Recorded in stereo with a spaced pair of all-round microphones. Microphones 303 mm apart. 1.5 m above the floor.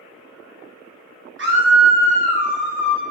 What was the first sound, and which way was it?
A scream, 40° right (ahead or behind).